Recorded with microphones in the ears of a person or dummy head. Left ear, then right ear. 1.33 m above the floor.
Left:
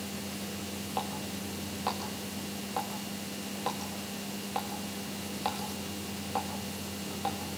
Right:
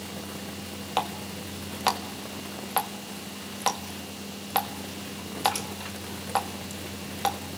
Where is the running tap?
50° right (ahead or behind), 1.4 m.